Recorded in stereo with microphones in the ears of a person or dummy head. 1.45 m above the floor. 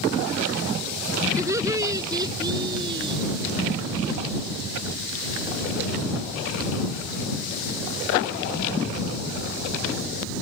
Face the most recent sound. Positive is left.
turn(degrees=-25)  # may be behind; listen again after turning